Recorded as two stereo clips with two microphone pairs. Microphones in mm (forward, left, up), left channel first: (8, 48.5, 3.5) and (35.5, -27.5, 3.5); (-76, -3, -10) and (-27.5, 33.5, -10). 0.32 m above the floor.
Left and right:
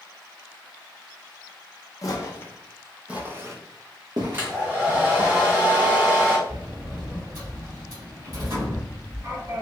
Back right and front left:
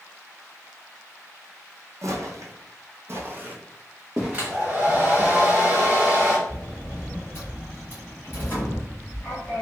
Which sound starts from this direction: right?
A sliding door, at 6.5 s.